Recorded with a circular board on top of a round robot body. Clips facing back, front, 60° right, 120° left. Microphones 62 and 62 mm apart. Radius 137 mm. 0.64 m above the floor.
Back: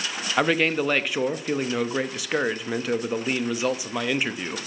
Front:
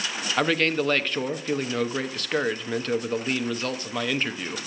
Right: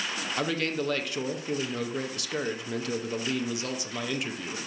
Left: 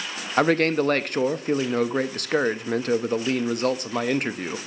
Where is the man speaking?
100° left, 0.8 m.